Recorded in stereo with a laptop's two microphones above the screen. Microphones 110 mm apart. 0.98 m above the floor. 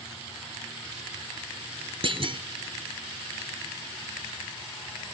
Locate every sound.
2.0 s a clunk: 55° right (ahead or behind)